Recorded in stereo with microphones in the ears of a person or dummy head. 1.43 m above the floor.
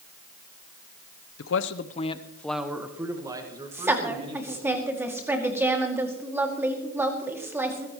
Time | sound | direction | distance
1.4 | a man speaking | 70° left (ahead or behind) | 0.8 m
3.7 | a woman speaking | 15° right (ahead or behind) | 2.5 m